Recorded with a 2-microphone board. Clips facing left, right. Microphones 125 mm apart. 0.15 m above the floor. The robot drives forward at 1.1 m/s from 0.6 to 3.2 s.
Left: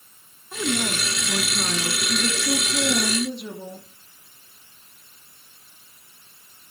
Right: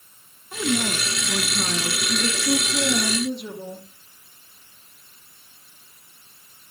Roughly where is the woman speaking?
Centre.